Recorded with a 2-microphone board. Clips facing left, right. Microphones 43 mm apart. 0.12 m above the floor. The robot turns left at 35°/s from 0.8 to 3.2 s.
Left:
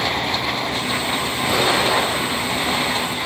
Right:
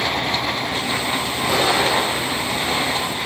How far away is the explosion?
About 3 m.